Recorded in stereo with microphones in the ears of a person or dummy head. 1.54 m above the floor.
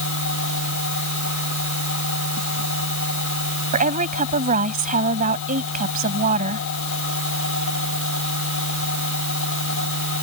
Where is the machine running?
70° left (ahead or behind).